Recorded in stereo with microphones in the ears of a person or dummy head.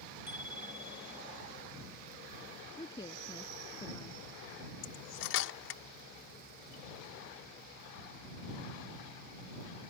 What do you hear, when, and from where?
0.3 s a bicycle bell: 15° right (ahead or behind)
2.8 s a woman speaking: 20° left (ahead or behind)
4.8 s cutlery clinking: 80° left